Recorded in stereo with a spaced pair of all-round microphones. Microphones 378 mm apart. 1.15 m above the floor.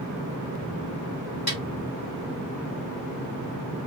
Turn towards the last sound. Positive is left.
turn(degrees=25)  # may be behind; listen again after turning